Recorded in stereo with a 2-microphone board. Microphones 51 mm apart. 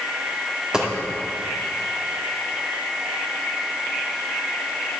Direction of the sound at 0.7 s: 15° right (ahead or behind).